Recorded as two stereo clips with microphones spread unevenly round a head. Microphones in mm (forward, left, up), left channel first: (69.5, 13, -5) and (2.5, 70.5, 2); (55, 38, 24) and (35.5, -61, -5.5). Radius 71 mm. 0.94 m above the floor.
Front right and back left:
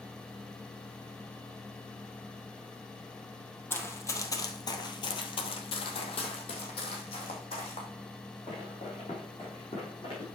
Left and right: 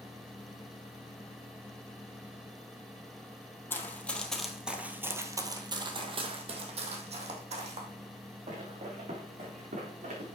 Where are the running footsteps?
25° left, 1.8 m; by 10.4 s 95° right, 5 m.